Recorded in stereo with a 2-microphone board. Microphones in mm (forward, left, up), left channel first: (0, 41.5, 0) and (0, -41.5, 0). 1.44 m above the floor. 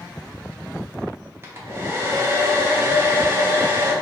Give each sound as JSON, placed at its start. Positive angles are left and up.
{"t": 1.4, "sound": "a hair dryer", "side_deg": -30, "distance_m": 0.8}